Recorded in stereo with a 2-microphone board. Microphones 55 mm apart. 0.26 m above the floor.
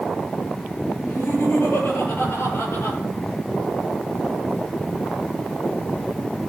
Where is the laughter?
50° left (ahead or behind), 5 m; by 3.0 s 60° left (ahead or behind), 6.5 m.